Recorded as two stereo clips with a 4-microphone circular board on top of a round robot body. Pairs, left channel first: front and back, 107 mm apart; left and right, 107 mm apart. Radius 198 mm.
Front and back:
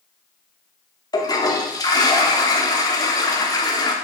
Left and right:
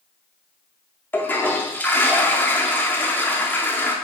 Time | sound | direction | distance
1.1 | a toilet flushing | 25° left | 1.0 m